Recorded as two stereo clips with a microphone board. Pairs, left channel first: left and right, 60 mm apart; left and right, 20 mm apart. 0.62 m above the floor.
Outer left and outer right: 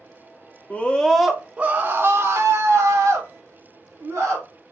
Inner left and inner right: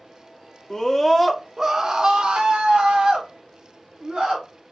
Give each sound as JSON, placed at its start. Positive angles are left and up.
{"t": 0.7, "sound": "a scream", "side_deg": 25, "distance_m": 0.6}